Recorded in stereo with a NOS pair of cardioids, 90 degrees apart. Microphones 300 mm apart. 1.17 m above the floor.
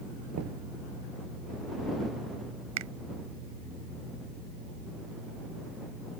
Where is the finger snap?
65° right.